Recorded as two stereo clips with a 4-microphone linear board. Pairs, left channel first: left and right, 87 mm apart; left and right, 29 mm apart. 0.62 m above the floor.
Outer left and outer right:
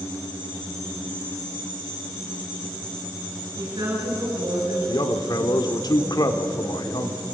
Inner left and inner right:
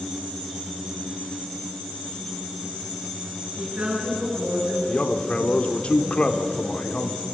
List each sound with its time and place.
3.6 s a woman speaking: 60° right (ahead or behind), 9 m
4.9 s a man speaking: 45° left (ahead or behind), 1.8 m